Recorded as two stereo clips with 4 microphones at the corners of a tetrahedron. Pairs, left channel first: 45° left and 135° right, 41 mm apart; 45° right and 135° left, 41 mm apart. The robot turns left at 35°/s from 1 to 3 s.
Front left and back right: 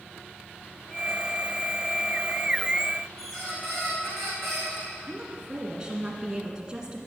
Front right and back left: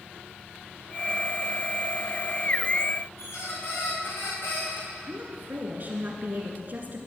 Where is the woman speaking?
160° left, 1.5 m.